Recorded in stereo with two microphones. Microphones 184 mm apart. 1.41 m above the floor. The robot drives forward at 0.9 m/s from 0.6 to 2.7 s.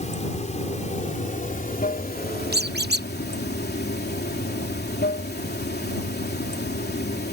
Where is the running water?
40° left (ahead or behind); by 7.3 s 60° left (ahead or behind).